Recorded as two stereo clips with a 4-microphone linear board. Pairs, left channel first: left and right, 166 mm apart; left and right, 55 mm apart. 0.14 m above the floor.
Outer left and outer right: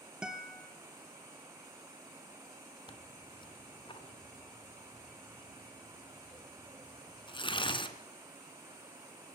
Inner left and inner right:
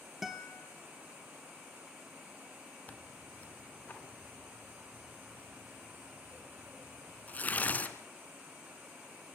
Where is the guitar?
5° right (ahead or behind), 1.8 m.